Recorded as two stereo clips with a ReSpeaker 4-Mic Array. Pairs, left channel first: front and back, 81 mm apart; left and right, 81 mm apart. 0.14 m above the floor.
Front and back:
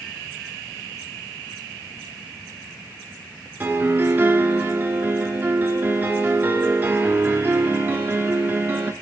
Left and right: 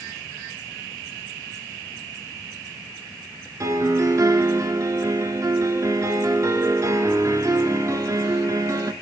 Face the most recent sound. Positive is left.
turn(degrees=-120)